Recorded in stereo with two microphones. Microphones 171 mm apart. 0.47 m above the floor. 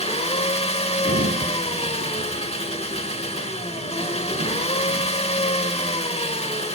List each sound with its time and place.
0.0 s an engine running: 35° left (ahead or behind), 1.3 m
1.1 s a sliding door: 60° right (ahead or behind), 2 m